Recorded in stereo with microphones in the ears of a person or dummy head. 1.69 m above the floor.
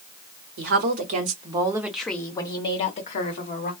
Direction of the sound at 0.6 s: 55° right (ahead or behind).